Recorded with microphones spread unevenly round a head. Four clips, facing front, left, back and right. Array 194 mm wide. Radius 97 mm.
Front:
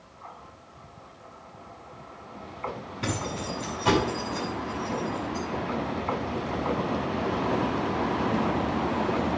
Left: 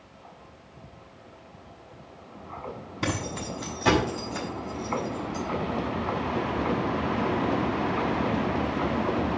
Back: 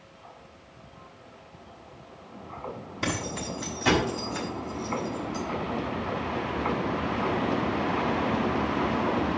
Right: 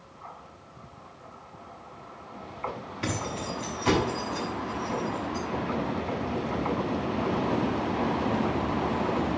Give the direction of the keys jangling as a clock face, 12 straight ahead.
9 o'clock.